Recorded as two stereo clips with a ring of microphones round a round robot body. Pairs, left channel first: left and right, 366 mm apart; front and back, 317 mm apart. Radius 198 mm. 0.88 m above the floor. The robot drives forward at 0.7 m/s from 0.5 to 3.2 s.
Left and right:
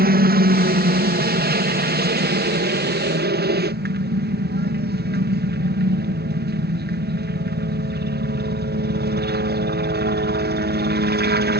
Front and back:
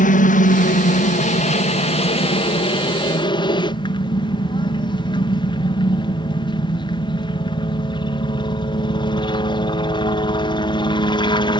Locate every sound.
0.0 s a helicopter: 45° right; by 11.6 s 60° right